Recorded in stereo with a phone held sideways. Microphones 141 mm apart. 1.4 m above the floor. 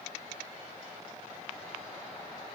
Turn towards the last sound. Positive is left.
No sound to turn to.